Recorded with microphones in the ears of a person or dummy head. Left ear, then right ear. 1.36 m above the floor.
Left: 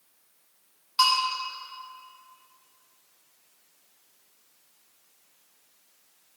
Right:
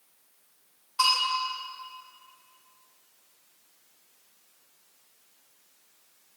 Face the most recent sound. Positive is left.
turn(degrees=35)  # may be behind; listen again after turning